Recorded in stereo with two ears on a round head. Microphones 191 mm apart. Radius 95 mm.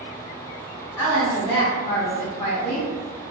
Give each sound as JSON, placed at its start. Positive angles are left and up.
{"t": 1.0, "sound": "a woman speaking", "side_deg": 20, "distance_m": 0.8}